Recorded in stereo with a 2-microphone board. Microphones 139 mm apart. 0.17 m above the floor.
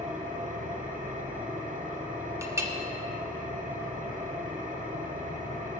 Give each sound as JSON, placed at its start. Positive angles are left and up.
{"t": 0.0, "sound": "an engine running", "side_deg": -60, "distance_m": 1.7}
{"t": 2.4, "sound": "a clink", "side_deg": -20, "distance_m": 1.0}